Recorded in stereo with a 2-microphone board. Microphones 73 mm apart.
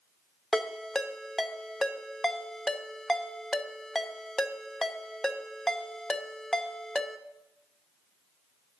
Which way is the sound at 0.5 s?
5° left (ahead or behind).